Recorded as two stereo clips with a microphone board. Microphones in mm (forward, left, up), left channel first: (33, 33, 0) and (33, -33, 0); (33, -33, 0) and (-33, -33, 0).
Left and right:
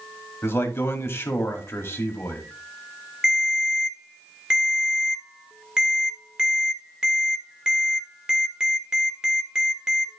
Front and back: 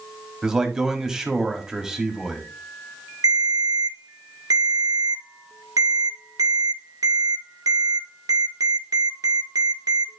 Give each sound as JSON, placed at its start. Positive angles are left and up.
{"t": 0.4, "sound": "a man speaking", "azimuth_deg": 100, "distance_m": 1.7}
{"t": 3.2, "sound": "a ringtone", "azimuth_deg": -170, "distance_m": 1.8}